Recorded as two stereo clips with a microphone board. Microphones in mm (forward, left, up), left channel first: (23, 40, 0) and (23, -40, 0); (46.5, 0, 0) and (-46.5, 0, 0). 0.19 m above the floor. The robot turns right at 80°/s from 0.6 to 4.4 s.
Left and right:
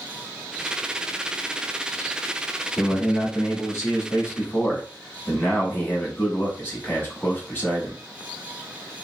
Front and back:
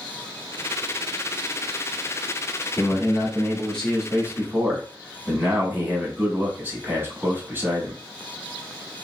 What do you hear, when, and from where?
2.8 s a man speaking: straight ahead, 1.2 m; by 8.0 s 130° left, 1.2 m